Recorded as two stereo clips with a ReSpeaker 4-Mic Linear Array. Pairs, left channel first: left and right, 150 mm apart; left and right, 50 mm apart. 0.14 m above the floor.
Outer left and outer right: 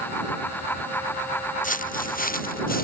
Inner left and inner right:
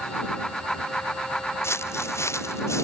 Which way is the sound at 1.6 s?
65° left (ahead or behind).